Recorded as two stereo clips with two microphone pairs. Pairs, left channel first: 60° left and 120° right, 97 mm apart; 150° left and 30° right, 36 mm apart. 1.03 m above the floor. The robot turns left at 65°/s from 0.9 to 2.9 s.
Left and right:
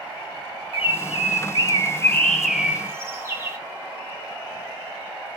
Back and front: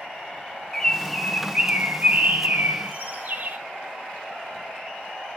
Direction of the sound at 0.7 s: 70° left.